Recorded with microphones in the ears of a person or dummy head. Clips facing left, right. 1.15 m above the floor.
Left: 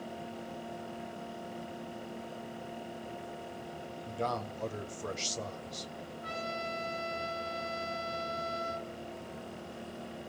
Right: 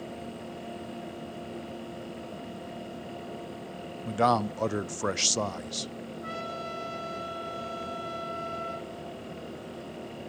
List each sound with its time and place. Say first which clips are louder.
4.0 s a man speaking: right 10 dB; 75° right (ahead or behind), 0.6 m
6.2 s a trumpet: left 1 dB; 30° right (ahead or behind), 2.5 m